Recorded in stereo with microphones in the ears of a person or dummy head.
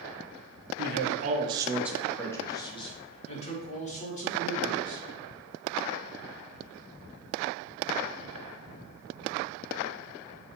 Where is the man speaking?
55° right (ahead or behind), 0.6 m; by 5.0 s 45° left (ahead or behind), 1.9 m.